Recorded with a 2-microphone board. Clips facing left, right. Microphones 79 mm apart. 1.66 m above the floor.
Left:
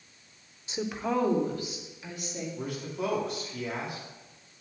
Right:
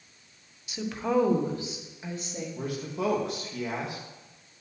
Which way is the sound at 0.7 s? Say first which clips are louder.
Right 2 dB; 30° left (ahead or behind).